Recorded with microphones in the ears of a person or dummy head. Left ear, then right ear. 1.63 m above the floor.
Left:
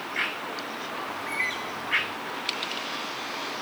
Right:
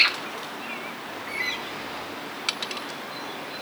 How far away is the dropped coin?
About 1.6 m.